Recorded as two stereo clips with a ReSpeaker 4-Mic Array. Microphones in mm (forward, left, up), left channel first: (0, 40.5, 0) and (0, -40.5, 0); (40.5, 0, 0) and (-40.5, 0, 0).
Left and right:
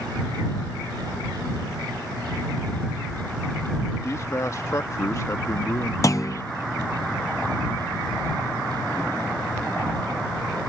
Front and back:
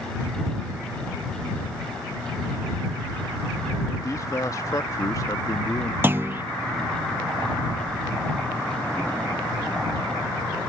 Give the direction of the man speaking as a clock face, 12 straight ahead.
11 o'clock.